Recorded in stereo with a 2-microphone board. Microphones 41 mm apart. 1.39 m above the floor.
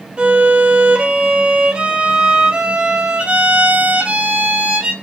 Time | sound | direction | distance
0.2 | a violin | 25° right (ahead or behind) | 0.8 m